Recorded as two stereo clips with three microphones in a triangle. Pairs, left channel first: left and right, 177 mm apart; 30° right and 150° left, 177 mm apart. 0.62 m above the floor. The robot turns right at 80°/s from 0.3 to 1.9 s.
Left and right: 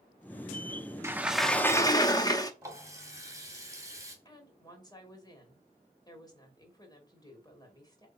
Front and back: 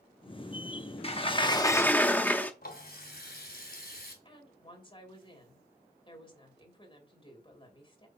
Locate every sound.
1.0 s a sliding door: 25° right, 0.9 m; by 2.5 s 40° left, 0.9 m
2.6 s a running tap: 20° right, 2.5 m
4.2 s a woman speaking: 25° left, 3 m